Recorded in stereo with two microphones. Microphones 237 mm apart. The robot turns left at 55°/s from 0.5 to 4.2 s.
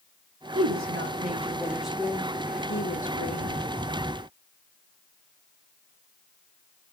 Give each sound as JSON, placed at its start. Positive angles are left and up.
{"t": 0.6, "sound": "a woman speaking", "azimuth_deg": -105, "distance_m": 0.8}